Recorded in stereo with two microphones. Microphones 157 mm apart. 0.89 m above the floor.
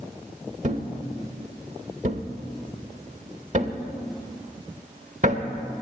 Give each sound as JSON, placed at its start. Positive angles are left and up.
{"t": 0.6, "sound": "a thud", "side_deg": -50, "distance_m": 0.8}